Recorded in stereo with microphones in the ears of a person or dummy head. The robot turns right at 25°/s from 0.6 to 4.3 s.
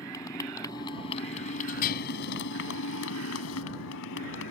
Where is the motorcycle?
15° left; by 4.5 s 110° left.